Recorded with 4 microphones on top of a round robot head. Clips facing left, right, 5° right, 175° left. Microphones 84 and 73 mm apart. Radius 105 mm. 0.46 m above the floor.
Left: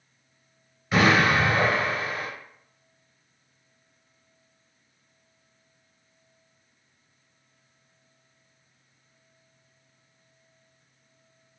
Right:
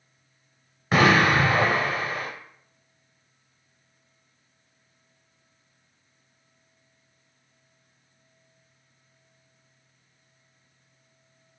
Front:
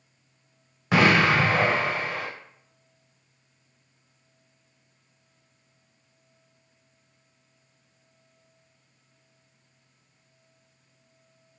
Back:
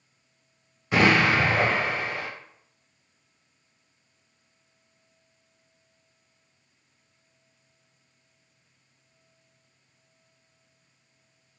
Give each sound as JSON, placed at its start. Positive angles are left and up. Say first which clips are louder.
{"t": 0.9, "sound": "an explosion", "louder": "right 1 dB, front 1 dB", "azimuth_deg": -35, "distance_m": 0.7}